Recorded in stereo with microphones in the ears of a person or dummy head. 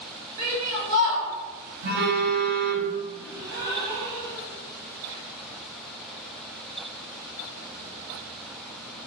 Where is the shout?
50° right (ahead or behind), 1.8 m.